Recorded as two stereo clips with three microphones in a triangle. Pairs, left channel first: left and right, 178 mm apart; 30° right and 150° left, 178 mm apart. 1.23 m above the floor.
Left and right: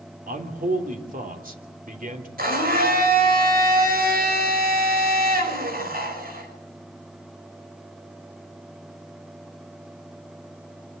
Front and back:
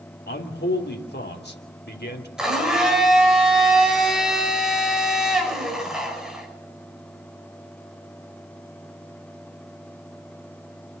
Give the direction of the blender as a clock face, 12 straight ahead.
4 o'clock.